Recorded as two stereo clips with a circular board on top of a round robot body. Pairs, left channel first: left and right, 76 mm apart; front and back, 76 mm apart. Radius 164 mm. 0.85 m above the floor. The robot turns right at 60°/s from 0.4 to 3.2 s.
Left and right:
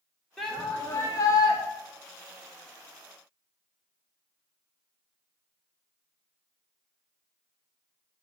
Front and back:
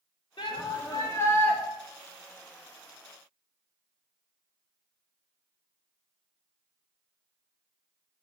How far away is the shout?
About 1.7 m.